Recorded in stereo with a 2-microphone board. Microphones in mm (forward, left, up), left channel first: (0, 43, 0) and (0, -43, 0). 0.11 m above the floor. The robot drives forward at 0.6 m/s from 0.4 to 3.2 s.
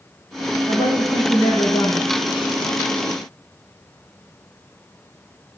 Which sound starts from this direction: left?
A woman speaking, at 0.7 s.